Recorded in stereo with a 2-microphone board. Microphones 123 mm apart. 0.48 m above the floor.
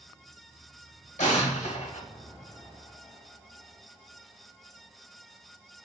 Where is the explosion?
70° left (ahead or behind), 1.0 m.